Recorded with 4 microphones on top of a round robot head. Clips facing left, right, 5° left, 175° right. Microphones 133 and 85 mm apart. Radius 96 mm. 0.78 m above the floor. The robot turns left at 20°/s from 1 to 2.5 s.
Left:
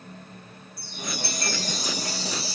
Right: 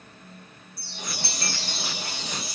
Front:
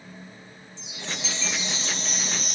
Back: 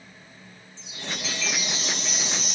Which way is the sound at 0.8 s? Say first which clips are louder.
Left 3 dB, back 1 dB; 70° left.